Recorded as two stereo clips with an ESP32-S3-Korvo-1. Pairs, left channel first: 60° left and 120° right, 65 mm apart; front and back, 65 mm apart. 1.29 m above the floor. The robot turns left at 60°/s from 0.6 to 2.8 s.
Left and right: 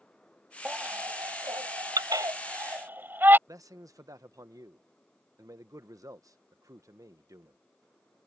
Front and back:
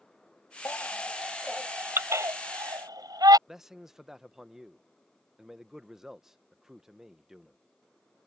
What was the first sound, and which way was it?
A baby crying, 50° right.